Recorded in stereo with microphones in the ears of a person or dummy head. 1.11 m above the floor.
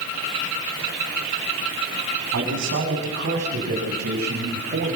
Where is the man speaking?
60° right (ahead or behind), 8.5 m; by 5.0 s 55° right (ahead or behind), 5 m.